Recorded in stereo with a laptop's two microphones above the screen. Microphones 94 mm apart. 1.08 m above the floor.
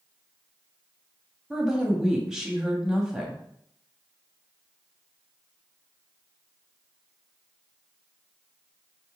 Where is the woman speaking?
5° right (ahead or behind), 1.5 m.